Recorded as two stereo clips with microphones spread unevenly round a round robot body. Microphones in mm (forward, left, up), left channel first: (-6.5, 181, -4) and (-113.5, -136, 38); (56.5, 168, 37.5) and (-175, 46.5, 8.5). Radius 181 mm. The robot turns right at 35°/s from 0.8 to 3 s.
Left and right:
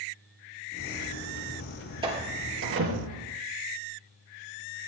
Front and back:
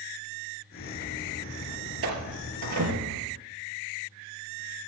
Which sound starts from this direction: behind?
A door slam, at 2.0 s.